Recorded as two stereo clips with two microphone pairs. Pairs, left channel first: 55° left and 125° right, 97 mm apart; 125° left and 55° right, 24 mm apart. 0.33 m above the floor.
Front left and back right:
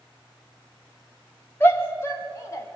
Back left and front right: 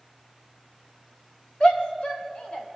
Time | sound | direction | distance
1.6 | a shout | 115° left | 2 m